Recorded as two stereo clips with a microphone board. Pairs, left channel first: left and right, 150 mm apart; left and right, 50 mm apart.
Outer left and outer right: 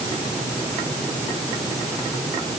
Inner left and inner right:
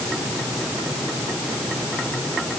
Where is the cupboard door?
I don't hear a cupboard door.